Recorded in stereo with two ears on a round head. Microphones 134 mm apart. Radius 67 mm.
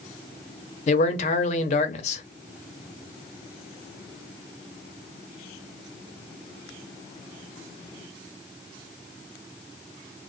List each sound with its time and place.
0.9 s a man speaking: 45° left (ahead or behind), 0.6 m